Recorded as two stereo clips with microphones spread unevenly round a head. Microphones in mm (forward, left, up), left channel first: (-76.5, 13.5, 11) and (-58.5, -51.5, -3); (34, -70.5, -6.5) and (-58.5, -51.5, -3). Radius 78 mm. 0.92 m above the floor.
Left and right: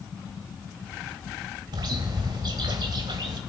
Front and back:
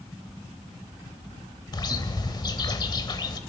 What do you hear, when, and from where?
1.7 s a bird: 45° right, 1.0 m